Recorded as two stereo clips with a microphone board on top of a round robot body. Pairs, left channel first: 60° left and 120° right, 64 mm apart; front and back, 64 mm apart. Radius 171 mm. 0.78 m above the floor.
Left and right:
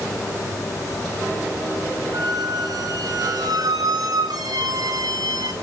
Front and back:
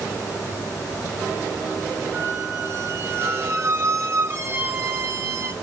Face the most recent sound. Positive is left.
turn(degrees=-130)